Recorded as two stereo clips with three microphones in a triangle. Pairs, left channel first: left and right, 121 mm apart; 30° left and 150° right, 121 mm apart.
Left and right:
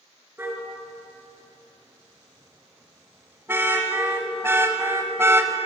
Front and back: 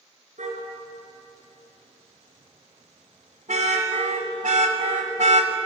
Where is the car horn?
165° right, 4.5 m; by 5.6 s 160° right, 1.4 m.